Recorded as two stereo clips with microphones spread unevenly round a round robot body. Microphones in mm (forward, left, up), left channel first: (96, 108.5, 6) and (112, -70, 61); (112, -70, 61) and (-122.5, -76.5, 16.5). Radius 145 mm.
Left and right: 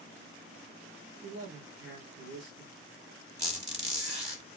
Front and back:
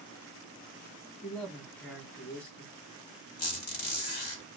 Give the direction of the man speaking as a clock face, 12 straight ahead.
3 o'clock.